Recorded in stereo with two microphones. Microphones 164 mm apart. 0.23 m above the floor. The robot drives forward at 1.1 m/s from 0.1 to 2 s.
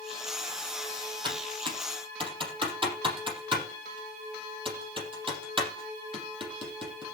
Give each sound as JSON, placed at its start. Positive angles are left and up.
{"t": 1.2, "sound": "typing on a keyboard", "side_deg": -30, "distance_m": 7.0}